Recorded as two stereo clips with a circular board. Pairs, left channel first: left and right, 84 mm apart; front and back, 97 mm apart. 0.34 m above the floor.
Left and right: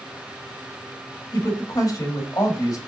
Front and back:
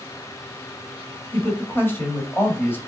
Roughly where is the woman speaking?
Ahead left.